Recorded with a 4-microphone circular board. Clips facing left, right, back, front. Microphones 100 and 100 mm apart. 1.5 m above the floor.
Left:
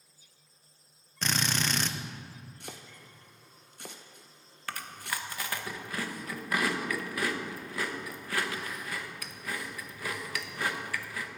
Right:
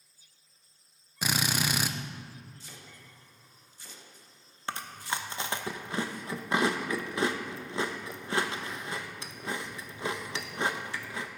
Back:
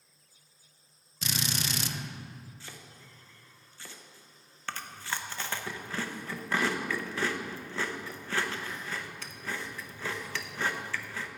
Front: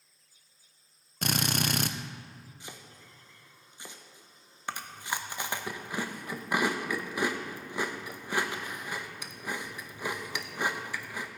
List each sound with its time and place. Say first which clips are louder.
1.2 s a drill: right 1 dB, front 5 dB; 15° right, 0.5 m
2.6 s chopping: left 4 dB, front 1 dB; 70° left, 0.9 m
4.7 s chewing: right 3 dB, front 2 dB; 60° right, 0.7 m